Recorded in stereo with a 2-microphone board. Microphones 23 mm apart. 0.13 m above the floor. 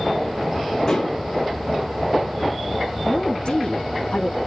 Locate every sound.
0.9 s dishes clattering: 30° left (ahead or behind), 7 m
3.1 s a woman speaking: 40° left (ahead or behind), 5.5 m